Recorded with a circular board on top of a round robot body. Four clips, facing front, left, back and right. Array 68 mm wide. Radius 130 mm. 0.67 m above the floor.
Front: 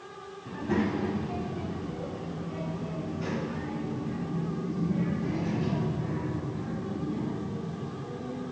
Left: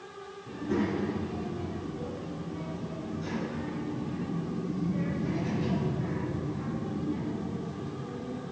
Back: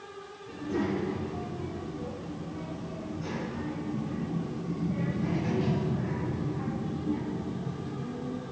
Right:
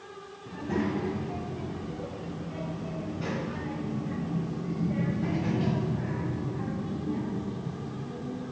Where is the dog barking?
No dog barking in this recording.